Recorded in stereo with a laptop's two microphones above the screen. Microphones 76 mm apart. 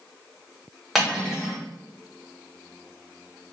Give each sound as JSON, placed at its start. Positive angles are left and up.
{"t": 0.9, "sound": "cutlery clinking", "side_deg": 0, "distance_m": 0.7}